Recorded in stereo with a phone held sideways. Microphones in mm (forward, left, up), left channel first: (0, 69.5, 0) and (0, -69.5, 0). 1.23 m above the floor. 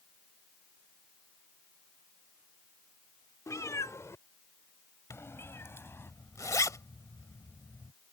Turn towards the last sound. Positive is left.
turn(degrees=20)  # may be behind; listen again after turning